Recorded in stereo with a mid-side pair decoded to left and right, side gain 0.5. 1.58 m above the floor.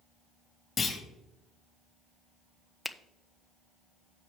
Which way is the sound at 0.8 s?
30° left.